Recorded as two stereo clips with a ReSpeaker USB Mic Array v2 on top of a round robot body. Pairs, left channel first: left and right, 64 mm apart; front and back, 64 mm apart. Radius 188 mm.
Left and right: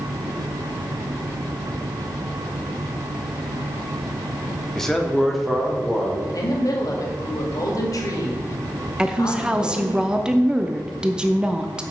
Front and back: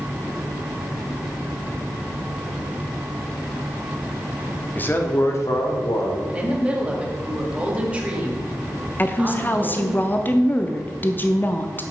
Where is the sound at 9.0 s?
25° right, 0.9 m.